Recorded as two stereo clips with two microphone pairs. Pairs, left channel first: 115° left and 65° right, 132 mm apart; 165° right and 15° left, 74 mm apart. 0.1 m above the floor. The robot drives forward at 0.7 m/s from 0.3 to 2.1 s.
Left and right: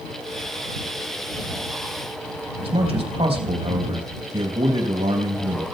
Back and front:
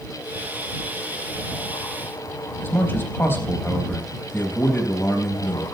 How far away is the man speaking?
About 3.5 m.